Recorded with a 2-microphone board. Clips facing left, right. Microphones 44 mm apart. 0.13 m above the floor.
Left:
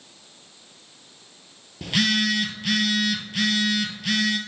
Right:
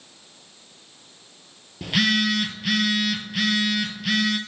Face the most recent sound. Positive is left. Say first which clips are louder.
# right 1 dB
turn(degrees=-5)  # may be behind; listen again after turning